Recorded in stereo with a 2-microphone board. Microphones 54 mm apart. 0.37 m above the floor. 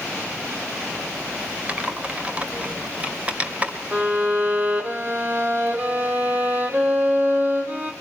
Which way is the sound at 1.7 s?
25° right (ahead or behind).